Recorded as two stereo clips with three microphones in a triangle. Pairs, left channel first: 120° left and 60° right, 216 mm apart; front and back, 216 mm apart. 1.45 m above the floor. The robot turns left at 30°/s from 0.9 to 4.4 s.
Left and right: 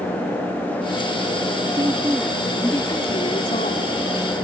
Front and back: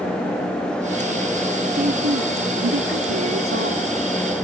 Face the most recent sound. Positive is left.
turn(degrees=150)